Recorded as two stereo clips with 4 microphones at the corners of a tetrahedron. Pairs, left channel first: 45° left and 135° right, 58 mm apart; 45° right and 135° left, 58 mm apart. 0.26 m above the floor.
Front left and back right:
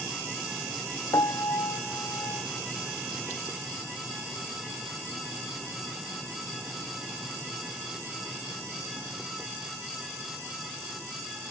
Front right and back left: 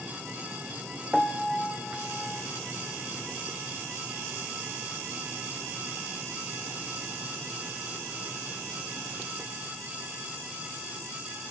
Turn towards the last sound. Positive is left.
turn(degrees=35)